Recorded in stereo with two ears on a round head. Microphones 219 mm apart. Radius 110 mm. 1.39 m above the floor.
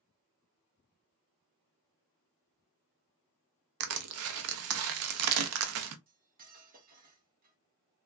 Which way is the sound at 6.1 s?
35° right (ahead or behind).